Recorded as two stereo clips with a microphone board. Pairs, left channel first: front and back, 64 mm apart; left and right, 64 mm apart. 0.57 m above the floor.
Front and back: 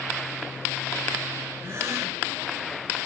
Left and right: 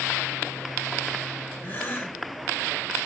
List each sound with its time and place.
1.6 s a gasp: 145° left, 1.8 m